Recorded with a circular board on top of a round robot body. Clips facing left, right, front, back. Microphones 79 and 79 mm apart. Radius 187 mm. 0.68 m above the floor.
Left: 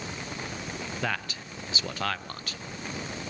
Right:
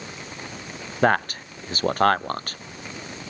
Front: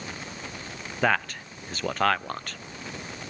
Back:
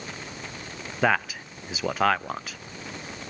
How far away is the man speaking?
About 0.6 m.